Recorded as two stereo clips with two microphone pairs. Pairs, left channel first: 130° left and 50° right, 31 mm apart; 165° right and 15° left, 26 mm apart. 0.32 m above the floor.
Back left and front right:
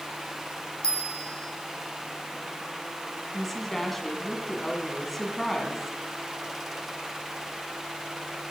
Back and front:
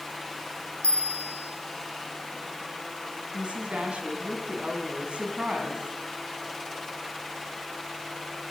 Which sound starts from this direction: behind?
A bell, at 0.8 s.